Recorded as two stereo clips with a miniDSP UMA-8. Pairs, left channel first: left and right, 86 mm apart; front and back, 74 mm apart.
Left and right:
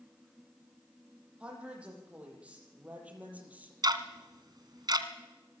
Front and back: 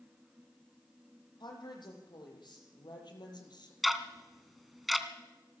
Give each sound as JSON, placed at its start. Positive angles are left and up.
{"t": 1.4, "sound": "a woman speaking", "azimuth_deg": -10, "distance_m": 9.5}
{"t": 3.8, "sound": "ticking", "azimuth_deg": -90, "distance_m": 1.8}